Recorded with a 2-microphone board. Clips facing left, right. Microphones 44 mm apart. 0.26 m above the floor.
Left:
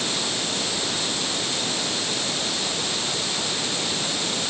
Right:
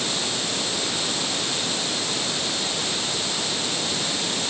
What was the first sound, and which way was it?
Only background noise.